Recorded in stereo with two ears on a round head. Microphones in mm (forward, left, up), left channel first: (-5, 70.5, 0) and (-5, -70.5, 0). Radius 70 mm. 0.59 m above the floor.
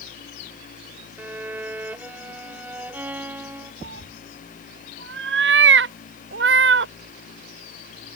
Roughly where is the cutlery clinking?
No cutlery clinking in this recording.